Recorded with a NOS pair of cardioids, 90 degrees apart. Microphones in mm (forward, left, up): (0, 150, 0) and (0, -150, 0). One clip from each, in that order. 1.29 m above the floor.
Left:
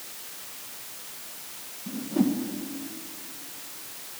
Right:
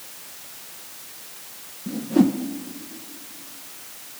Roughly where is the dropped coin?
No dropped coin in this recording.